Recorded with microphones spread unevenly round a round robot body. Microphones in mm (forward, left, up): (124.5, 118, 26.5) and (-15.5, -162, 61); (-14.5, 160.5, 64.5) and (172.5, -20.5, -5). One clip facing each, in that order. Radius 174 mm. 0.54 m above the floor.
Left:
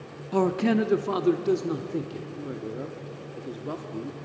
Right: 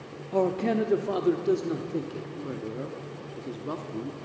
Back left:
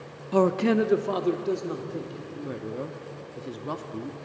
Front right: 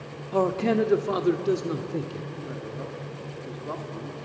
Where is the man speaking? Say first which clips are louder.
Left 2 dB, back left 2 dB; 85° left, 1.1 m; by 2.3 s 15° right, 1.9 m.